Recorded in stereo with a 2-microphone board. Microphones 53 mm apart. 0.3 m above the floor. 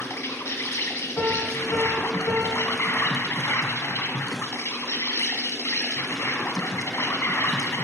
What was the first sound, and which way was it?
An insect, 60° left (ahead or behind).